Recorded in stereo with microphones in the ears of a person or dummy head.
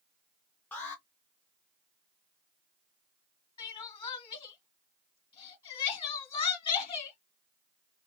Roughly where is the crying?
Left.